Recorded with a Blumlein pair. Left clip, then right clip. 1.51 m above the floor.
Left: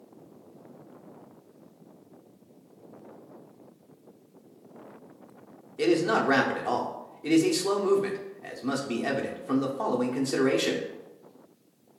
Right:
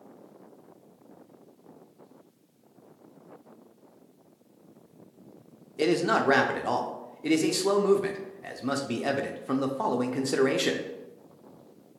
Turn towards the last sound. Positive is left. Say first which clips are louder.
# even
turn(degrees=-10)